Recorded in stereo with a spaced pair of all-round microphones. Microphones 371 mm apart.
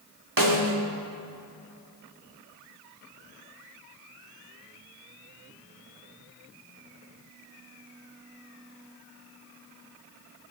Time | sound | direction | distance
0.4 | a snare drum | 55° right (ahead or behind) | 2 m